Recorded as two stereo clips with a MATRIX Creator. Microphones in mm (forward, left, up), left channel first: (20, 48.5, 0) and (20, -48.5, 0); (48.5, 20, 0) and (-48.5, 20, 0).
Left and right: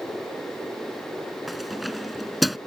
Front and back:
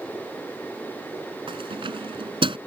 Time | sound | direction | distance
1.5 | keys jangling | straight behind | ?